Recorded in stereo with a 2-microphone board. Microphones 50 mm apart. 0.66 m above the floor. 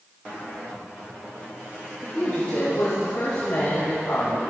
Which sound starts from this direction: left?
A woman speaking, at 2.0 s.